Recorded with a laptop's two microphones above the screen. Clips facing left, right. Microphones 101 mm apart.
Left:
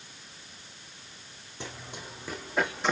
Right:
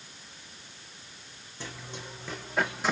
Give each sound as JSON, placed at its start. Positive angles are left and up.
{"t": 1.6, "sound": "running footsteps", "side_deg": 20, "distance_m": 3.0}